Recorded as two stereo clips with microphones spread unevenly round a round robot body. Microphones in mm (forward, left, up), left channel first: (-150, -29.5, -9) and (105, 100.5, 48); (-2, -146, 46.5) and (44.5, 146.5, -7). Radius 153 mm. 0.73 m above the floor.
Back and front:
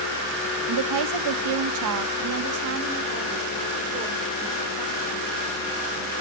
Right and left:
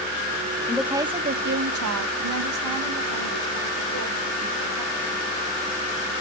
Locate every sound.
0.7 s a woman speaking: 10° right, 0.9 m; by 5.2 s 90° left, 3 m